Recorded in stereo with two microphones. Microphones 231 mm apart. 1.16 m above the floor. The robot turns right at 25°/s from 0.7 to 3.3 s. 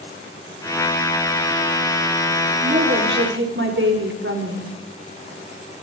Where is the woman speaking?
35° right (ahead or behind), 4.5 m; by 4.7 s 55° right (ahead or behind), 4.5 m.